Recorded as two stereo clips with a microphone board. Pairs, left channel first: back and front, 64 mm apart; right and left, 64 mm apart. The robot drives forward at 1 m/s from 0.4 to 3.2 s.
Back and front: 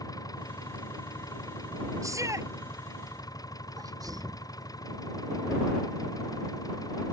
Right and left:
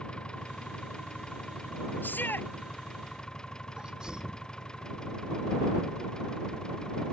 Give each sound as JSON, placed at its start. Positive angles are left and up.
{"t": 0.0, "sound": "an engine running", "azimuth_deg": -165}
{"t": 2.0, "sound": "a shout", "azimuth_deg": -30}
{"t": 3.8, "sound": "a sneeze", "azimuth_deg": 15}